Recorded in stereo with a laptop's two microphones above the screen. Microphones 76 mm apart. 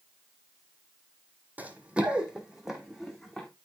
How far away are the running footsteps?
About 1.8 m.